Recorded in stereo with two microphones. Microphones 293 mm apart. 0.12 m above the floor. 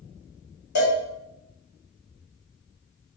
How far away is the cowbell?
About 1.6 m.